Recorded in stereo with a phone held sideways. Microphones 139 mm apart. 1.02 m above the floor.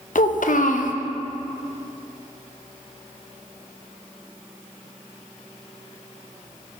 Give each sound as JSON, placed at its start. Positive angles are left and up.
{"t": 0.1, "sound": "a child speaking", "side_deg": 70, "distance_m": 0.6}